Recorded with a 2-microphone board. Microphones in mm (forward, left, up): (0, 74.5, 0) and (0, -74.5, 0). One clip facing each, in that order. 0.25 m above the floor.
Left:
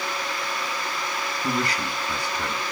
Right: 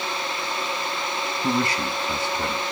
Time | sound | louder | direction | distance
1.4 | a man speaking | right 3 dB | 25° right (ahead or behind) | 1.7 m